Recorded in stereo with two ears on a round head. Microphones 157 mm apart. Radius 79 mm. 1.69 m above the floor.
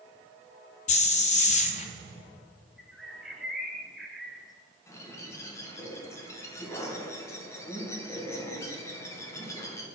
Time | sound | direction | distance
0.9 | a hiss | 40° left (ahead or behind) | 0.6 m
2.8 | a bird | centre (ahead or behind) | 0.7 m
4.9 | a bird | 20° left (ahead or behind) | 1.2 m